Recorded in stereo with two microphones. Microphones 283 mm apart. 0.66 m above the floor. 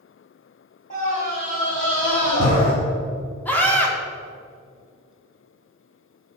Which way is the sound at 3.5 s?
5° left (ahead or behind).